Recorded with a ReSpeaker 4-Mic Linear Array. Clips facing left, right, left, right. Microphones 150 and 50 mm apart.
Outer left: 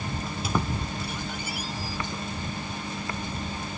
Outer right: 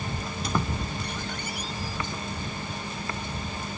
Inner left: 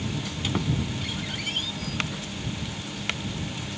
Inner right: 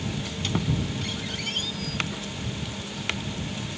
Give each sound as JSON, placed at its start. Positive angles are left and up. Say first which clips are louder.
{"t": 0.2, "sound": "a squeak", "louder": "outer left 1 dB, even", "side_deg": 5}